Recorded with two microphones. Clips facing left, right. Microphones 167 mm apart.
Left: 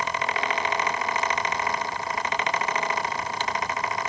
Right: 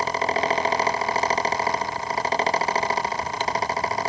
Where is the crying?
No crying in this recording.